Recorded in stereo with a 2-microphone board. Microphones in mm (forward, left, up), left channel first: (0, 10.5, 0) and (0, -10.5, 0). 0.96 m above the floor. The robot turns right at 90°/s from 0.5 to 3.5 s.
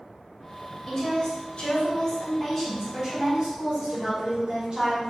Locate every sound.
0.9 s a woman speaking: 10° left, 1.3 m; by 5.1 s 115° right, 1.3 m